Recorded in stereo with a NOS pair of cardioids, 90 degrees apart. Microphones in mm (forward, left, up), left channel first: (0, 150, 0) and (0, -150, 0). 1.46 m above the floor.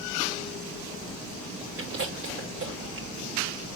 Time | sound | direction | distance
1.8 | chewing | 45° right | 6 m